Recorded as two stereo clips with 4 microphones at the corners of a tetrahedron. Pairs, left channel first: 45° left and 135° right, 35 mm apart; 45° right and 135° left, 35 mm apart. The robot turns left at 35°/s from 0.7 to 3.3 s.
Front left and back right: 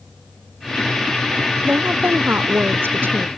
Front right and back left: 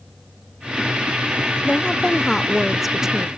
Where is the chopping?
I don't hear chopping.